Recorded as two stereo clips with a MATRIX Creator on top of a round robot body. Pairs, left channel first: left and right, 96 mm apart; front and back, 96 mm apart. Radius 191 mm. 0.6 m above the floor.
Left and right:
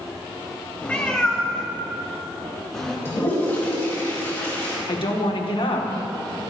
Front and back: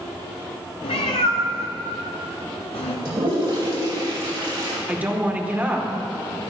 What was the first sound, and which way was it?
A cat meowing, 15° left.